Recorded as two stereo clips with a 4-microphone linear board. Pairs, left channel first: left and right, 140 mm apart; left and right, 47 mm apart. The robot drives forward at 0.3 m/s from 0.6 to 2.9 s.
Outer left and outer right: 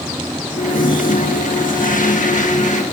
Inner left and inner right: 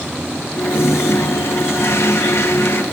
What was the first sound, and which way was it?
A toilet flushing, 65° left (ahead or behind).